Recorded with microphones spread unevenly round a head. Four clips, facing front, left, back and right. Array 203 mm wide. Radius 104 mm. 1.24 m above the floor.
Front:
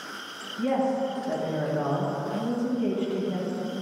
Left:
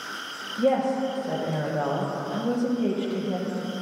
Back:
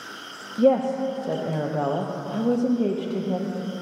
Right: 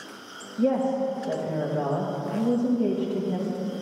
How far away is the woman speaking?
About 1.2 m.